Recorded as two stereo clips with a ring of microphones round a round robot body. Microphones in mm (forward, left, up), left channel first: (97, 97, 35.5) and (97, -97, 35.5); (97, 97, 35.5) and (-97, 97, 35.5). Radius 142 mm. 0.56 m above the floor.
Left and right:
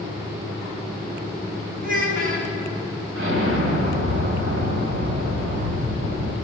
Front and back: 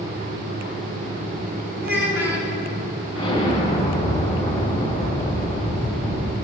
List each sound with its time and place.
1.8 s a child speaking: 130° right, 3.5 m
3.1 s an explosion: 90° right, 2.5 m